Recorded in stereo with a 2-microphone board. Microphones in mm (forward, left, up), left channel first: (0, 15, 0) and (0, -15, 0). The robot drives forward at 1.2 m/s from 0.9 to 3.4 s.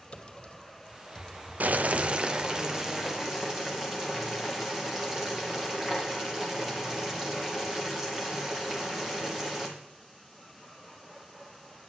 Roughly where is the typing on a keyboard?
Left.